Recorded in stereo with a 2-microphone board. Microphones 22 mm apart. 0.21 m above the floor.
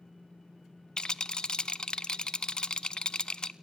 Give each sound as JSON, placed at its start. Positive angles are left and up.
{"t": 1.0, "sound": "a rattle", "side_deg": 40, "distance_m": 0.6}